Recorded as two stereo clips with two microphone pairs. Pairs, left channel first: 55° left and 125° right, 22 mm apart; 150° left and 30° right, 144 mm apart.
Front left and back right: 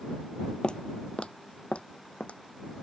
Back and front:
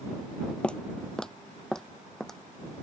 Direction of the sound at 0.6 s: 70° left.